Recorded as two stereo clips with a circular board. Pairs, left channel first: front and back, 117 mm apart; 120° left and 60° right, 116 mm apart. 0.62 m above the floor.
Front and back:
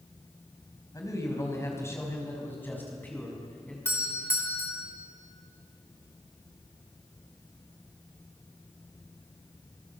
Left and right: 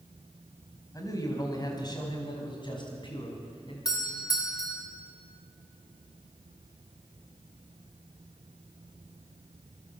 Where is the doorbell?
65° left, 3.5 m.